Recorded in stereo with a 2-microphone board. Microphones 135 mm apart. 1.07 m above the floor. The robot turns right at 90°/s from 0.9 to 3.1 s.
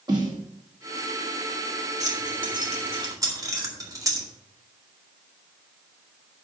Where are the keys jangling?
55° right (ahead or behind), 2.0 m; by 4.3 s 25° right (ahead or behind), 2.0 m.